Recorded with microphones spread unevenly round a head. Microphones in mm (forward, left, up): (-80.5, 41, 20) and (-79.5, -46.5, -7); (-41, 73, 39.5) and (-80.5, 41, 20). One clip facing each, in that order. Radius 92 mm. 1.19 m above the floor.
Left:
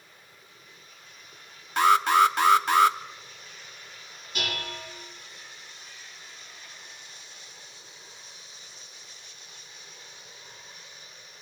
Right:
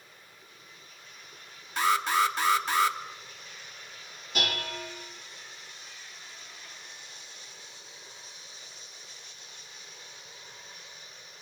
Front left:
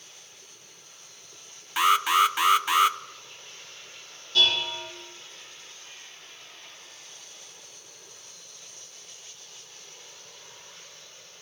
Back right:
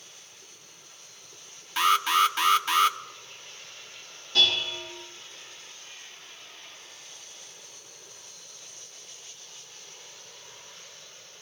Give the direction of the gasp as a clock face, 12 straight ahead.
I don't hear a gasp.